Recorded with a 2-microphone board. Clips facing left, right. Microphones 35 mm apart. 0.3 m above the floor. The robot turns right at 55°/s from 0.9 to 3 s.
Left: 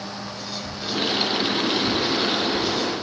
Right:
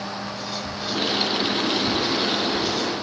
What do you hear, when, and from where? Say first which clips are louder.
0.2 s whispering: right 2 dB; 10° right (ahead or behind), 1.1 m; by 3.0 s 25° left (ahead or behind), 1.1 m